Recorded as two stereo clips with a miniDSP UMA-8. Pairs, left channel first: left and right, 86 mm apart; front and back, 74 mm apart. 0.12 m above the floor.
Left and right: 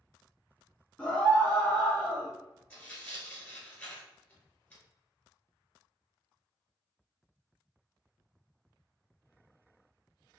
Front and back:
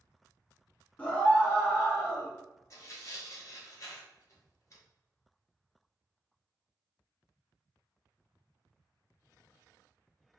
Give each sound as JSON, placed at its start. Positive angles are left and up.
{"t": 1.0, "sound": "a scream", "azimuth_deg": 40, "distance_m": 1.2}
{"t": 2.7, "sound": "tearing paper", "azimuth_deg": 20, "distance_m": 1.5}